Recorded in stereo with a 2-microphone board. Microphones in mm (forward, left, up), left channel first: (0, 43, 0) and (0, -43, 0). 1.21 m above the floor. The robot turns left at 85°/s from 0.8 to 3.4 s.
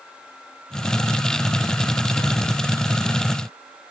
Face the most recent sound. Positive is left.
No sound to turn to.